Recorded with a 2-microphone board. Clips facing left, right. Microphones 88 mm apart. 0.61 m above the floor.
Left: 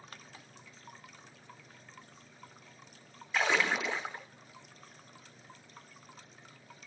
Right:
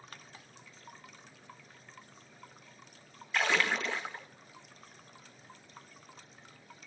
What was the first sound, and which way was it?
A splash, 5° left (ahead or behind).